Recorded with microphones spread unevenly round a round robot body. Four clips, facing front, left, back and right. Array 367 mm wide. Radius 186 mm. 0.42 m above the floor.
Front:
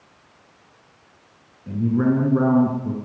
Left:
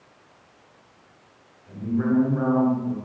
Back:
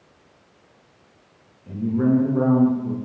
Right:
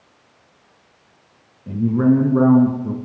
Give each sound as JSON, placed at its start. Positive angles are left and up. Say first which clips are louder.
{"t": 1.7, "sound": "a man speaking", "louder": "right 8 dB, even", "azimuth_deg": -60, "distance_m": 6.5}